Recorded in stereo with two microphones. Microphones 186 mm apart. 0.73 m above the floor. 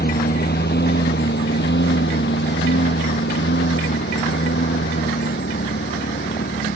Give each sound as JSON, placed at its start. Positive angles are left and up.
{"t": 0.0, "sound": "a lawn mower", "side_deg": 60}